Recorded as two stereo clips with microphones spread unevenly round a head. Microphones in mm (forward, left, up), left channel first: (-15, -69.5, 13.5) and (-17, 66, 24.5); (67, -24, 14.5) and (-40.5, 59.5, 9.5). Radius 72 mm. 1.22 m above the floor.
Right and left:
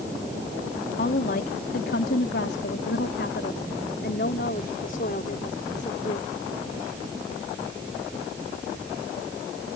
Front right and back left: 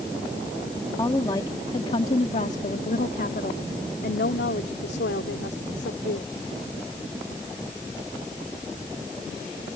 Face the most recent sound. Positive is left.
turn(degrees=-45)